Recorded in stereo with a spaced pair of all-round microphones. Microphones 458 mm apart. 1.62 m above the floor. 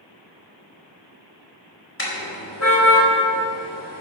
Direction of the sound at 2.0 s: 25° left (ahead or behind).